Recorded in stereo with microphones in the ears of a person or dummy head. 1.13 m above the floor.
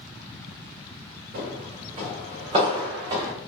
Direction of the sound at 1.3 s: 45° right (ahead or behind).